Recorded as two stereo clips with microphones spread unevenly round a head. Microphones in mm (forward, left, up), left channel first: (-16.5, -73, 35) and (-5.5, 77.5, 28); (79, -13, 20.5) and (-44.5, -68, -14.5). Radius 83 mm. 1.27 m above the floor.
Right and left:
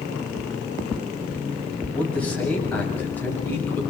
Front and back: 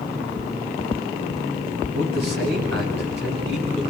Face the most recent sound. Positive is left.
turn(degrees=-175)